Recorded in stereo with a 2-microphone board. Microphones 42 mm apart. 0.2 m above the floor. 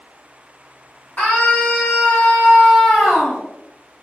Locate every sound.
1.2 s a scream: 35° left (ahead or behind), 1.9 m; by 3.4 s 15° left (ahead or behind), 1.5 m